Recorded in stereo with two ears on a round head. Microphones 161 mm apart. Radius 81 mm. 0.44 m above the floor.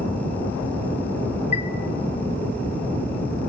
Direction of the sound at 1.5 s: 35° left (ahead or behind).